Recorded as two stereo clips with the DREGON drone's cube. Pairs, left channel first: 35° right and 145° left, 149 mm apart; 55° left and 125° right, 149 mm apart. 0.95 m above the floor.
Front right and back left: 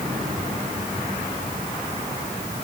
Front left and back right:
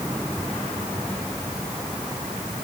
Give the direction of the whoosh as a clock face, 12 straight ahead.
No whoosh in this recording.